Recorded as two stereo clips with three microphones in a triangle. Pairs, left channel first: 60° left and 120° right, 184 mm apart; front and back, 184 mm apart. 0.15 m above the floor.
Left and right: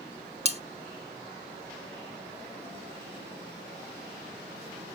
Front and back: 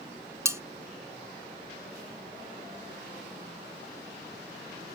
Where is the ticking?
No ticking in this recording.